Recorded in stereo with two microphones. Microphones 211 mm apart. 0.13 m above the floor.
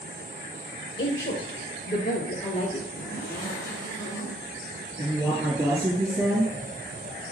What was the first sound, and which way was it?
A woman speaking, 60° left (ahead or behind).